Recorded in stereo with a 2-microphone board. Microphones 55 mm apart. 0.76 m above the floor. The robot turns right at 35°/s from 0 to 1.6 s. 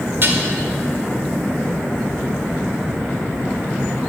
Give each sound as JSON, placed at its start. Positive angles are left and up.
{"t": 0.2, "sound": "dishes clattering", "side_deg": -45, "distance_m": 1.6}